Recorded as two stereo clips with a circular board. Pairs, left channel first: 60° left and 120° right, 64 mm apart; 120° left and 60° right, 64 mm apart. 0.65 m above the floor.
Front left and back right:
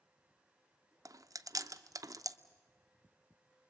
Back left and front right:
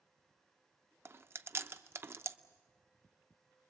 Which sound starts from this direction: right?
Chewing, at 1.1 s.